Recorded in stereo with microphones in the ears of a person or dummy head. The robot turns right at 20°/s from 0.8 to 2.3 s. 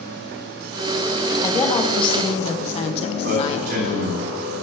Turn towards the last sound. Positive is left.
turn(degrees=-65)  # may be behind; listen again after turning